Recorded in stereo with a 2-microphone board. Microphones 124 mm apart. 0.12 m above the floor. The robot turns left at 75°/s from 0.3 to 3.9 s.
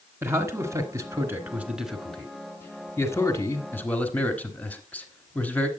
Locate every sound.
0.2 s a man speaking: 20° right (ahead or behind), 1.6 m; by 5.7 s 15° left (ahead or behind), 1.6 m